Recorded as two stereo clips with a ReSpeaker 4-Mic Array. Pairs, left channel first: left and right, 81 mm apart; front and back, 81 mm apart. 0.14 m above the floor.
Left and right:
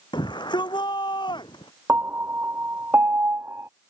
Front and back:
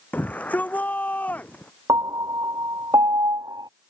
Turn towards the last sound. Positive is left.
turn(degrees=-150)